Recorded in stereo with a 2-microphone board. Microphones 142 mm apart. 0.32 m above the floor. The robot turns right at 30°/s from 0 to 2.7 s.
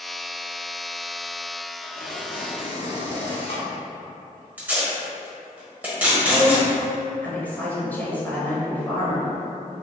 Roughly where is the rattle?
I don't hear a rattle.